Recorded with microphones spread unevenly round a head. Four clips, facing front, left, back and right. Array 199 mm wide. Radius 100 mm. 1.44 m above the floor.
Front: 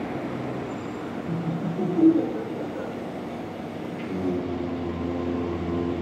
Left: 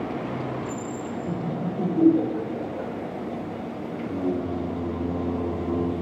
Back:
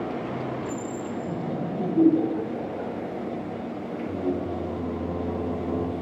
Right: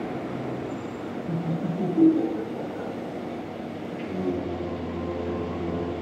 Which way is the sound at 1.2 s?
145° left.